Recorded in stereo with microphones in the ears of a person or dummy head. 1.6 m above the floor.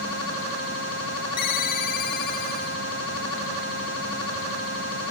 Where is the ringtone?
60° left (ahead or behind), 1.6 m.